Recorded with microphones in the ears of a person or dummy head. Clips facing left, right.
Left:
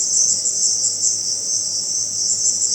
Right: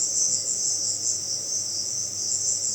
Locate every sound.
0.0 s an insect: 85° left, 9.5 m